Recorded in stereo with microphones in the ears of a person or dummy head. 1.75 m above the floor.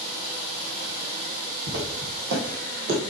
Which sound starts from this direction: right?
Footsteps, at 1.7 s.